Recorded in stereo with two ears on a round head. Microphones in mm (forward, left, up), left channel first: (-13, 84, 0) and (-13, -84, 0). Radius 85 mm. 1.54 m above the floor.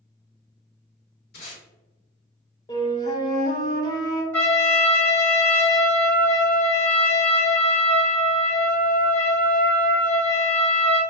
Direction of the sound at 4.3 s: 10° left (ahead or behind).